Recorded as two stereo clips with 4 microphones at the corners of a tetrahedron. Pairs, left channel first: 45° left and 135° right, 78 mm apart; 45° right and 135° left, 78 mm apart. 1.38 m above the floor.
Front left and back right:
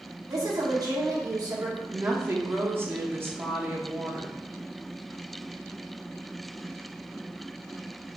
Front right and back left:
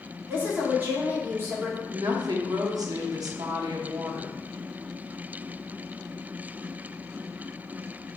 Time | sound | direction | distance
0.3 | a woman speaking | 165° right | 1.8 m
1.9 | a woman speaking | 165° left | 0.8 m